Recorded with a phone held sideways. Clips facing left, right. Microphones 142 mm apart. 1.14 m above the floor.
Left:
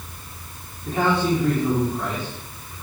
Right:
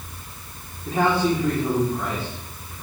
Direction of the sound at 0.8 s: 5° right (ahead or behind).